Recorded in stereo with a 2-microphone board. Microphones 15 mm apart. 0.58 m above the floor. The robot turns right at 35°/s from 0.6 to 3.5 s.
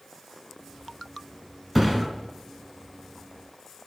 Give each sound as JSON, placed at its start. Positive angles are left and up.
{"t": 1.8, "sound": "a thud", "side_deg": -20, "distance_m": 1.3}